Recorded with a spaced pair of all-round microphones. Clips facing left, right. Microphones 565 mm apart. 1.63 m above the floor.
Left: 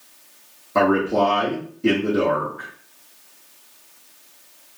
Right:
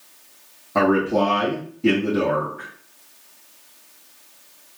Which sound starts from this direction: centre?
A man speaking, at 0.8 s.